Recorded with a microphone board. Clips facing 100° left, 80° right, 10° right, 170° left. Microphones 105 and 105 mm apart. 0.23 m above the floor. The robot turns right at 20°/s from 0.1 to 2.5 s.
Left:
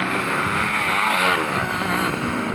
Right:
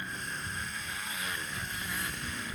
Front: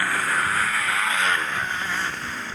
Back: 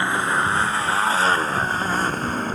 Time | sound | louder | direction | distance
0.0 | a motorcycle | left 18 dB, back 3 dB | 105° left | ?